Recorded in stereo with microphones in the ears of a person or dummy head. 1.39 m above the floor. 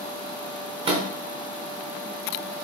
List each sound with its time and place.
0.8 s a microwave: 35° right (ahead or behind), 0.5 m